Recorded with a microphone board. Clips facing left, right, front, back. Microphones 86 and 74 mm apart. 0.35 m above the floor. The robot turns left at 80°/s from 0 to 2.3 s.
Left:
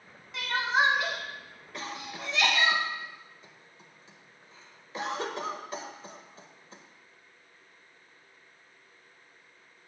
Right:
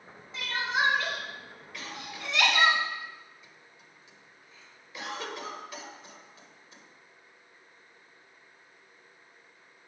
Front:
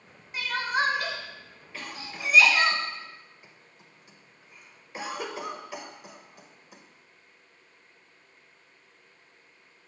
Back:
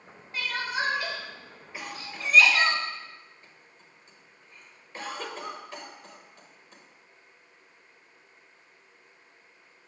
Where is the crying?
70° left, 1.3 m; by 2.7 s 85° right, 1.3 m.